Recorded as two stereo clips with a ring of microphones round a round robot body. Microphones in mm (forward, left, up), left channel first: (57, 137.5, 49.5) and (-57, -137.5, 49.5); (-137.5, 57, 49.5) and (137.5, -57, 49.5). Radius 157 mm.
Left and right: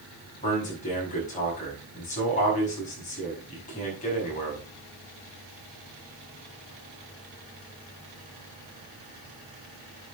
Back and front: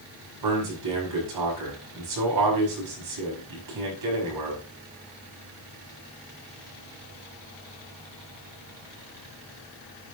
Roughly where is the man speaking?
Ahead.